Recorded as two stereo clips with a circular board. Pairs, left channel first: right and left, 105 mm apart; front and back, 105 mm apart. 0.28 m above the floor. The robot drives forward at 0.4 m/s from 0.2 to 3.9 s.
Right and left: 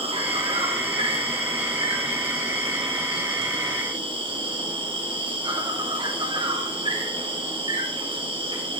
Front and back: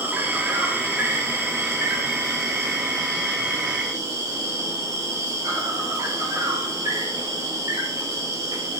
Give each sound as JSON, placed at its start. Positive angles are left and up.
{"t": 0.0, "sound": "an insect", "azimuth_deg": 110, "distance_m": 5.0}